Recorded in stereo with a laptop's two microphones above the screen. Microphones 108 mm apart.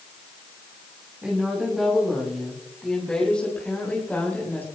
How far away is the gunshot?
No gunshot in this recording.